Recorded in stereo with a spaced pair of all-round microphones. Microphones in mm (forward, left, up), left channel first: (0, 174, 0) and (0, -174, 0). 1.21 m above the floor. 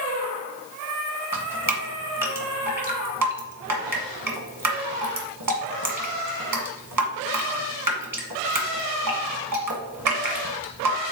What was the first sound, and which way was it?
Dripping, 70° right (ahead or behind).